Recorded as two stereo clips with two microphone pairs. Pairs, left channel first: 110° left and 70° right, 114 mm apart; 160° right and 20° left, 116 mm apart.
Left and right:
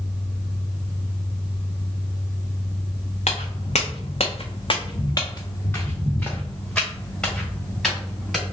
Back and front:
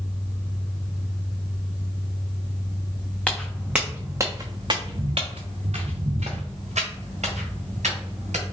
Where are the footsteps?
120° left, 1.0 m; by 8.4 s 20° left, 2.5 m.